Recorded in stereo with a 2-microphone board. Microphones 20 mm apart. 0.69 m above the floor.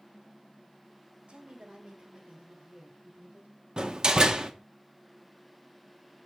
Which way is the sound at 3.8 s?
40° right (ahead or behind).